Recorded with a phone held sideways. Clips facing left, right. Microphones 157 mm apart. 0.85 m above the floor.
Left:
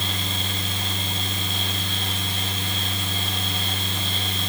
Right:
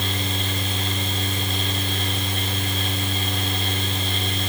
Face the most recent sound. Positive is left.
turn(degrees=-65)  # may be behind; listen again after turning